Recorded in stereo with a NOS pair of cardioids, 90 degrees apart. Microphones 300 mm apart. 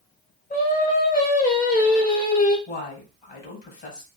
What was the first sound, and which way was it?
Singing, 30° left.